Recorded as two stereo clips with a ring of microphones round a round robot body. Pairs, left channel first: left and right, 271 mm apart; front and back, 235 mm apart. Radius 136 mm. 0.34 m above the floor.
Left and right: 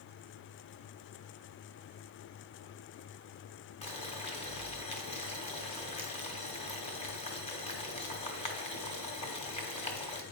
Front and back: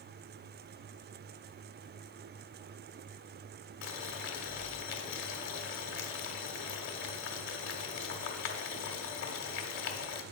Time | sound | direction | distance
3.8 | boiling | 25° left | 1.2 m